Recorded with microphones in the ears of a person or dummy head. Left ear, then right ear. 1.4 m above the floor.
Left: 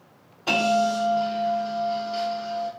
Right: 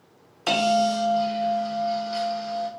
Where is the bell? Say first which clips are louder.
Even; 40° right (ahead or behind), 0.8 m.